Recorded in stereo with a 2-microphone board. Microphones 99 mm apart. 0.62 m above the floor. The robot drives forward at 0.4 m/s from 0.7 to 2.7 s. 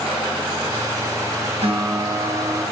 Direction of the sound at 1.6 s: 75° right (ahead or behind).